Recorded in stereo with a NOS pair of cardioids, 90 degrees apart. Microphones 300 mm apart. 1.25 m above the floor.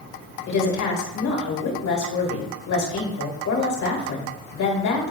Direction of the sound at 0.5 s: 65° left.